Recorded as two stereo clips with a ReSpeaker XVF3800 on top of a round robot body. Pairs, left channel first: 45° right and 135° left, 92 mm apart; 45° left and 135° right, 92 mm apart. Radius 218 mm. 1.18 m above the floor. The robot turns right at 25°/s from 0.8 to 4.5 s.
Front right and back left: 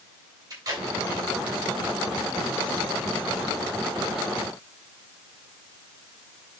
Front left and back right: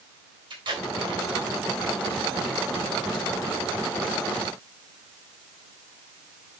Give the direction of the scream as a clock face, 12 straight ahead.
No scream in this recording.